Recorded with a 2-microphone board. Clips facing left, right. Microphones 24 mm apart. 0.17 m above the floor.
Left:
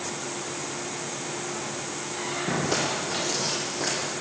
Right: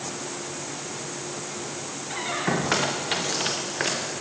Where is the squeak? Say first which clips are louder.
Right 3 dB; 70° right (ahead or behind), 6 m.